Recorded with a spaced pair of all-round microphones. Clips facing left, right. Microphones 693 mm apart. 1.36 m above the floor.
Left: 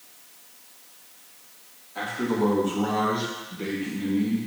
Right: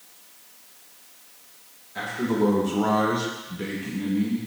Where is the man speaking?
45° right (ahead or behind), 2.5 m; by 4.4 s 10° right (ahead or behind), 2 m.